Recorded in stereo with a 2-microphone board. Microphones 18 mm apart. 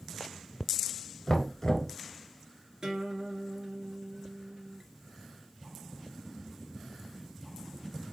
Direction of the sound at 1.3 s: 25° left (ahead or behind).